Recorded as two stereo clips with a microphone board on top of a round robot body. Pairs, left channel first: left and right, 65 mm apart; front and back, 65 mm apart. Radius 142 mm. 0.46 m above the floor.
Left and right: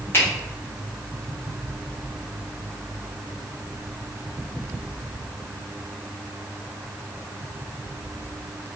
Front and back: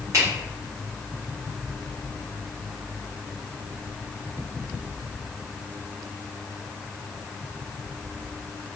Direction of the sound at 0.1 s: 145° left.